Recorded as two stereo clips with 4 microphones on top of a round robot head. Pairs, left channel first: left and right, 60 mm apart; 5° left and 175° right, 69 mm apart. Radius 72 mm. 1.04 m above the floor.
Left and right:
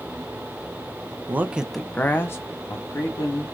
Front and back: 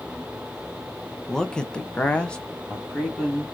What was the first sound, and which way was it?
A man speaking, 70° right.